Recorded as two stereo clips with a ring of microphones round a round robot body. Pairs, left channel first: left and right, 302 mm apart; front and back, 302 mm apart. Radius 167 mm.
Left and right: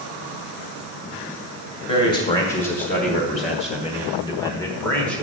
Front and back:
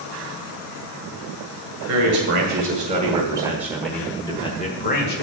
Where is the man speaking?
145° left, 1.7 m; by 5.2 s 5° left, 1.4 m.